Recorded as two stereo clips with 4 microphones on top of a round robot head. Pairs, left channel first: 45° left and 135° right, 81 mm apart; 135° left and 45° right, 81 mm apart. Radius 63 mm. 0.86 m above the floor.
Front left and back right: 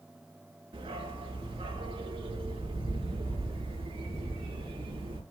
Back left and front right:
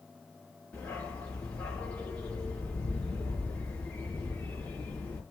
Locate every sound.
0.7 s a dog barking: 150° right, 5 m